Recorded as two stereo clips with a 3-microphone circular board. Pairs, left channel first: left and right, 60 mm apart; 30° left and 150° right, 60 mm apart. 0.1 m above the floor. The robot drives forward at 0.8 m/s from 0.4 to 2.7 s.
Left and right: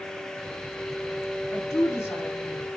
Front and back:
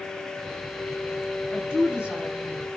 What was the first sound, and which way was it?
A woman speaking, 135° left.